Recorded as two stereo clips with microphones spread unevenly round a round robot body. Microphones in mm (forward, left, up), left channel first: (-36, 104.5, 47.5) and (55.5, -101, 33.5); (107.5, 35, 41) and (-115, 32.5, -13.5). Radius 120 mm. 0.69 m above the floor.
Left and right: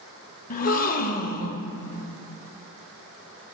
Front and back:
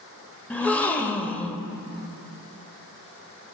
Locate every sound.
0.5 s a gasp: 70° left, 0.5 m